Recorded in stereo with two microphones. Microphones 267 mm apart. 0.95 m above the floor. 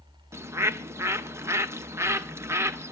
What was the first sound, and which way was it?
A bird, 10° right (ahead or behind).